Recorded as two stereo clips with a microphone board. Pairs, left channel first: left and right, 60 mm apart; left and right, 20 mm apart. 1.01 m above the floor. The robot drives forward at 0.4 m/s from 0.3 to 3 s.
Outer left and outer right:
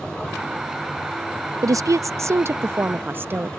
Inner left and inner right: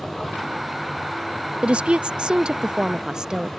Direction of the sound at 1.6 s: 65° right (ahead or behind).